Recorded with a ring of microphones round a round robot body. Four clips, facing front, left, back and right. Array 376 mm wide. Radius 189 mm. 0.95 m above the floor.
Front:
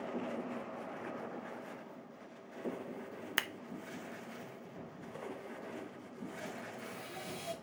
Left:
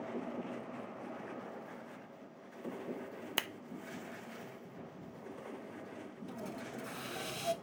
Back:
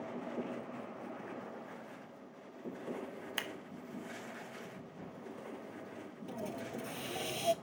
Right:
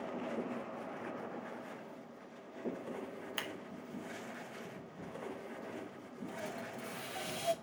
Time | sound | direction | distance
3.4 | scissors | 65° left | 0.5 m
6.3 | a hiss | 160° left | 0.8 m